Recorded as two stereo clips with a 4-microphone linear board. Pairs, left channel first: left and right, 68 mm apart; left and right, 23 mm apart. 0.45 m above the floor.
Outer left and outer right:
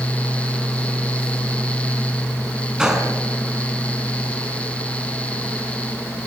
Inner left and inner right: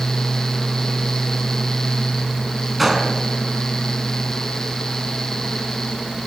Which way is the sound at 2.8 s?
10° right (ahead or behind).